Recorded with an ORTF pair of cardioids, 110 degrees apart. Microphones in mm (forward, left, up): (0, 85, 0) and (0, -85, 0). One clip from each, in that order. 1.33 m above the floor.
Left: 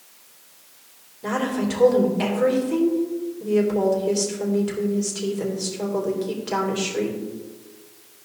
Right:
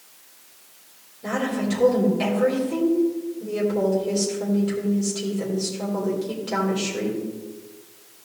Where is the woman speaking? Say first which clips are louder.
Left 1 dB; 25° left, 3.5 m.